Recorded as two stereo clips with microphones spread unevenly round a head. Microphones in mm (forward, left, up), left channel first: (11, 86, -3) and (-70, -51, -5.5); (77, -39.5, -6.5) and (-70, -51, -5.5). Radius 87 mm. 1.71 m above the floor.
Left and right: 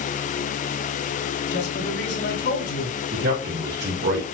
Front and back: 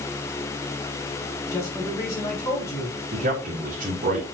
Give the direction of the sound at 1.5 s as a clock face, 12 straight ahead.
9 o'clock.